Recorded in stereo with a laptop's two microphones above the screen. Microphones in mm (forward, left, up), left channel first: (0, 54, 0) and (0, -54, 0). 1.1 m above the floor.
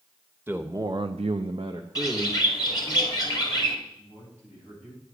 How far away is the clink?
I don't hear a clink.